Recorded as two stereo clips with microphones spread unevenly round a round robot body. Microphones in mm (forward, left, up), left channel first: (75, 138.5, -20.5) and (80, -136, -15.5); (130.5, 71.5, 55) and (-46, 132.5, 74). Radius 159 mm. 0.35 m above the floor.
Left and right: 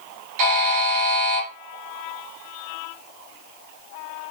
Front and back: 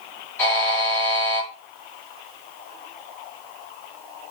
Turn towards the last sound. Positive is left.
turn(degrees=-100)